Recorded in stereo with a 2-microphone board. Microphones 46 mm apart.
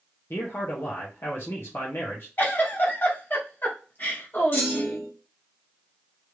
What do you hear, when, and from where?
0.3 s a man speaking: 60° left (ahead or behind), 0.8 m
2.4 s a giggle: 45° left (ahead or behind), 1.3 m
4.5 s a clunk: 45° left (ahead or behind), 1.4 m